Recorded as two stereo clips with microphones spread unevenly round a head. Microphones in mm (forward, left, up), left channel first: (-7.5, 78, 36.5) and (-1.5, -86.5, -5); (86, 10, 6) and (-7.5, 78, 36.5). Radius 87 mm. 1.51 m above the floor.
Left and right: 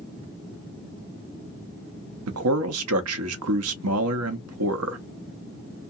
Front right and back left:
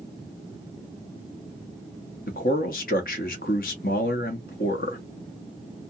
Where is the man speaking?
80° right, 0.7 m.